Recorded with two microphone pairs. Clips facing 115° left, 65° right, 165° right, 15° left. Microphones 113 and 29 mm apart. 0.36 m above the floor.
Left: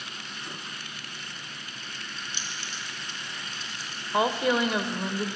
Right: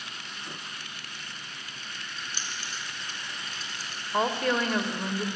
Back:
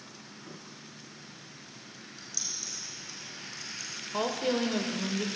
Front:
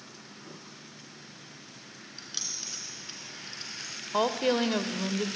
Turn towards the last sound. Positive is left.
turn(degrees=45)